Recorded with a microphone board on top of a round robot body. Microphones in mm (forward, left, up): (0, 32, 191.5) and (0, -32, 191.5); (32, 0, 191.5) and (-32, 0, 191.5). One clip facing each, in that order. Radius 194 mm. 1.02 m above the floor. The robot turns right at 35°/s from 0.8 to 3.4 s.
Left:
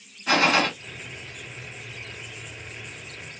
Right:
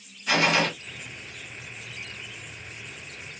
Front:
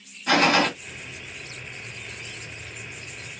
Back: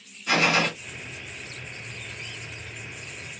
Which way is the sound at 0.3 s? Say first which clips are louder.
Left 2 dB, front 3 dB; 40° left.